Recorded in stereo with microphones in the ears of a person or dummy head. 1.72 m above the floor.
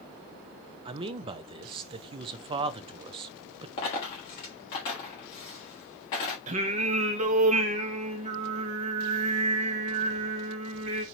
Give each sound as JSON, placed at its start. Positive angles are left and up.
{"t": 0.8, "sound": "a man speaking", "side_deg": -30, "distance_m": 0.5}
{"t": 3.8, "sound": "a dropped coin", "side_deg": 20, "distance_m": 1.2}
{"t": 6.5, "sound": "singing", "side_deg": -45, "distance_m": 0.8}